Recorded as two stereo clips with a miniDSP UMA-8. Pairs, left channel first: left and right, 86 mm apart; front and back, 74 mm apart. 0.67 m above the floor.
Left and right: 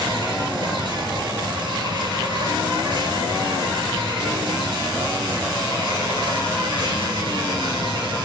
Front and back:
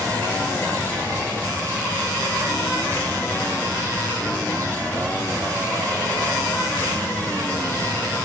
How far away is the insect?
About 3.5 m.